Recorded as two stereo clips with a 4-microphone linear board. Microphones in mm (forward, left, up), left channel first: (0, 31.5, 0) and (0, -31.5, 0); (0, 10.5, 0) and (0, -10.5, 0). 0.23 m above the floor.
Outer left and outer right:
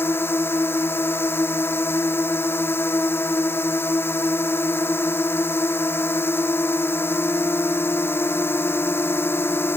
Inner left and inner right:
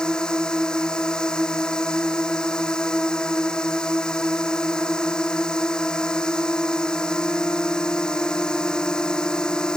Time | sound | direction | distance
0.0 | a drone | 40° left (ahead or behind) | ?